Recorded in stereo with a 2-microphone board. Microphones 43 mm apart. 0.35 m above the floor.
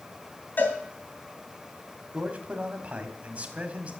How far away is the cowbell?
About 2.5 m.